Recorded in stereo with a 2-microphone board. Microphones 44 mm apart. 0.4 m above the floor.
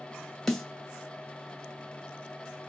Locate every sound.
0.5 s a snare drum: 10° left (ahead or behind), 1.5 m